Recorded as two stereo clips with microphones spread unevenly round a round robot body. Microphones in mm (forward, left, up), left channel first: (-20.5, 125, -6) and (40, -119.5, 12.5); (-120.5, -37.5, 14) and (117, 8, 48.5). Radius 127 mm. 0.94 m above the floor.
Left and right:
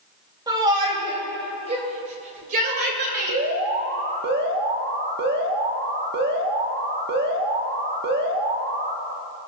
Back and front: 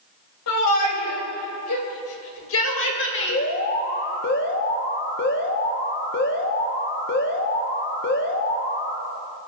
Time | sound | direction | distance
0.5 | a shout | 150° right | 4 m
3.3 | an alarm | 130° right | 1.8 m